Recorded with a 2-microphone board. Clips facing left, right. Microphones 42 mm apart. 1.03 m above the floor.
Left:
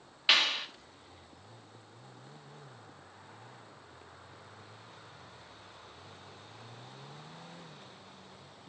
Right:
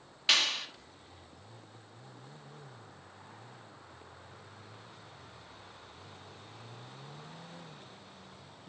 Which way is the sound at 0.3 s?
15° left (ahead or behind).